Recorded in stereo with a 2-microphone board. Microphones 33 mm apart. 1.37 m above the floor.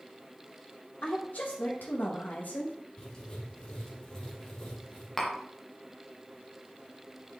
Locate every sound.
1.0 s a woman speaking: 65° left (ahead or behind), 1.5 m; by 2.7 s 50° left (ahead or behind), 1.7 m
3.0 s writing: 20° left (ahead or behind), 2 m
5.2 s tapping: 5° left (ahead or behind), 1.0 m